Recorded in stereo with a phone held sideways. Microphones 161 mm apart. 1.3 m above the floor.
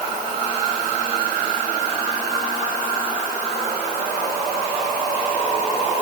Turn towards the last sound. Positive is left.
No sound to turn to.